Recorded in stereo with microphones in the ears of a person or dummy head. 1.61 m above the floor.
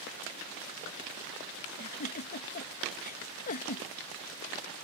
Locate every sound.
1.8 s a giggle: 40° left (ahead or behind)